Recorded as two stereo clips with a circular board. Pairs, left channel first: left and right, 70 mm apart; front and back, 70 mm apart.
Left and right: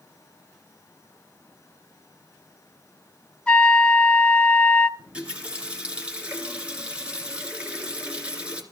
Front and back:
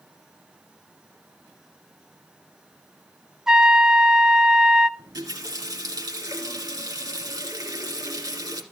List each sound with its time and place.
3.5 s a trumpet: 115° left, 0.6 m
5.0 s a running tap: 160° right, 2.5 m